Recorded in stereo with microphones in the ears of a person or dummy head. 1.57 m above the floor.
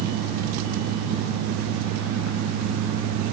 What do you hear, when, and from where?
Only background noise.